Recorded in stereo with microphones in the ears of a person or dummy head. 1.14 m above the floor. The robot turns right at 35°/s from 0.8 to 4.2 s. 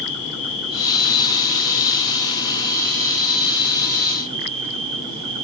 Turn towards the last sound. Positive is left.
turn(degrees=-145)